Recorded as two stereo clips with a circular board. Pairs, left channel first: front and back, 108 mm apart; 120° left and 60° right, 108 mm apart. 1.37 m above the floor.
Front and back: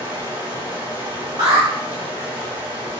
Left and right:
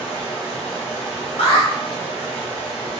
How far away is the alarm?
About 1.2 m.